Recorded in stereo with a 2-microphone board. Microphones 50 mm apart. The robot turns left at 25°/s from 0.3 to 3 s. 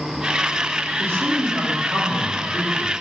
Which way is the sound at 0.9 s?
55° right.